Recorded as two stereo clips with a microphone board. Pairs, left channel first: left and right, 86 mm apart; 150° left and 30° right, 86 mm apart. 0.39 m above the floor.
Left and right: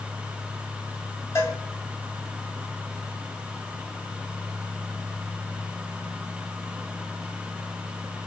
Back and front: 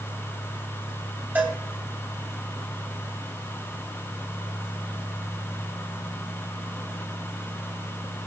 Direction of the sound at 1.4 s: 35° left.